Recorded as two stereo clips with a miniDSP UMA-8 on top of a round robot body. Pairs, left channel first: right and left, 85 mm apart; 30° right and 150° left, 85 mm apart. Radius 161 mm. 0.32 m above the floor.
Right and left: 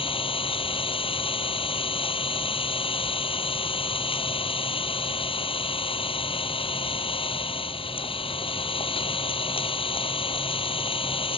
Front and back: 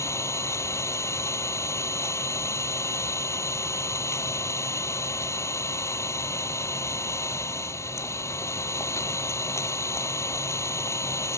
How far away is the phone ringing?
No phone ringing in this recording.